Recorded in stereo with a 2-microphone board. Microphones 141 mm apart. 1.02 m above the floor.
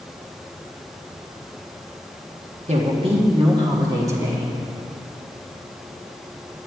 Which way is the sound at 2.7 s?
50° right (ahead or behind).